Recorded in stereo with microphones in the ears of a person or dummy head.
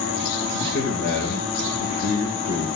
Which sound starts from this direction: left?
A man speaking, at 0.5 s.